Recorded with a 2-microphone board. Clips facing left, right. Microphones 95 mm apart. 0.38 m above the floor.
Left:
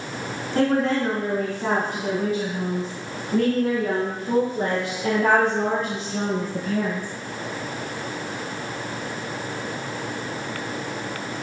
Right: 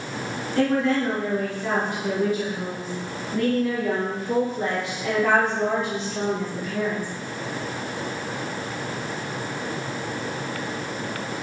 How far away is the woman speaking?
About 3 m.